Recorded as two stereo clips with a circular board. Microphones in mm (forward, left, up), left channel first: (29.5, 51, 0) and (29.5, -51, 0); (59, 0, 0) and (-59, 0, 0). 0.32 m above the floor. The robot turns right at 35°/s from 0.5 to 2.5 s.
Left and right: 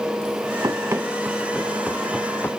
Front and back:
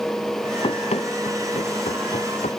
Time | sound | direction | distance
0.6 | running footsteps | 40° right | ?